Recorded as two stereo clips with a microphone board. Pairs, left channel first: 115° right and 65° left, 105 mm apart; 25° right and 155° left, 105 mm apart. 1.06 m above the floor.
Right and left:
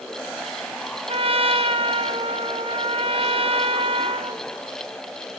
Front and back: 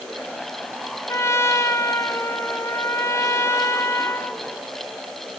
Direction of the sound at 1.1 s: 40° left.